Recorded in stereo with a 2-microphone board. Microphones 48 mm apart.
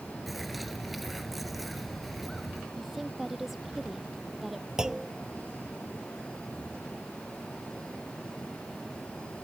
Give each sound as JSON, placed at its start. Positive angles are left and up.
{"t": 0.3, "sound": "a bird", "side_deg": 0}
{"t": 2.8, "sound": "a woman speaking", "side_deg": -5}
{"t": 4.8, "sound": "a clunk", "side_deg": -15}